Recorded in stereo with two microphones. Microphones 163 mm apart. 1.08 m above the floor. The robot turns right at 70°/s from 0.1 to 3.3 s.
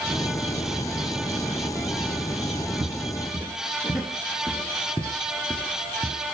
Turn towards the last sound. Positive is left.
turn(degrees=10)  # may be behind; listen again after turning